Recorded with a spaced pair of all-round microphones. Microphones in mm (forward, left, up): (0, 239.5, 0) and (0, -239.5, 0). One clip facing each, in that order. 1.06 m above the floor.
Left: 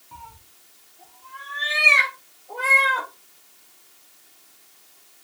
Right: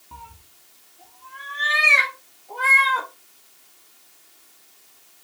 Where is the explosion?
I don't hear an explosion.